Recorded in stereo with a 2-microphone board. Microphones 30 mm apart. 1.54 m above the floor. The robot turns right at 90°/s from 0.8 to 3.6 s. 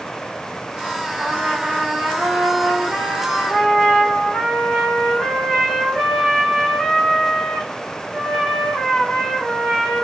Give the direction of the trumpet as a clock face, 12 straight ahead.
6 o'clock.